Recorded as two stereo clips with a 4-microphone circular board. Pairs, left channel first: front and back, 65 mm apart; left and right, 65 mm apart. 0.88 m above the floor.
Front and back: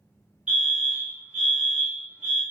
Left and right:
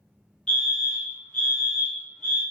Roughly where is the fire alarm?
Behind left.